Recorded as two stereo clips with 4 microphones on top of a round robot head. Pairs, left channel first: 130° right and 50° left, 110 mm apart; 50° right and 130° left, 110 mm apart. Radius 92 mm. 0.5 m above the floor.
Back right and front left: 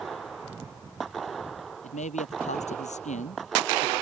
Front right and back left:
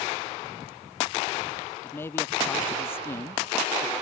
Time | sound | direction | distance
1.8 | a man speaking | 120° right | ?